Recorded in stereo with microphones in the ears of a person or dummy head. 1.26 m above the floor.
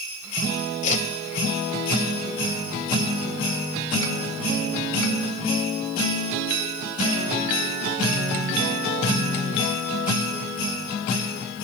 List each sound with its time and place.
0.8 s a whoosh: 40° left (ahead or behind), 2 m